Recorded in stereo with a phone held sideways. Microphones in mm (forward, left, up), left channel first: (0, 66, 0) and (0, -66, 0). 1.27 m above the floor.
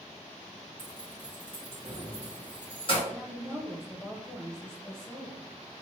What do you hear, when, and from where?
0.8 s keys jangling: 40° left (ahead or behind), 1.4 m
3.1 s a woman speaking: 5° left (ahead or behind), 1.0 m